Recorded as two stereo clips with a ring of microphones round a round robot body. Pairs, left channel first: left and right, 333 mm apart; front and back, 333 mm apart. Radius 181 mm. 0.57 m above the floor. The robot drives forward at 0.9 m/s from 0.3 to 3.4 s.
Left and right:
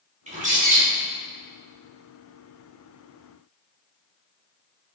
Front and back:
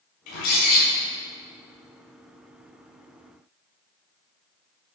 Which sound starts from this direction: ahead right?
A bird, at 0.3 s.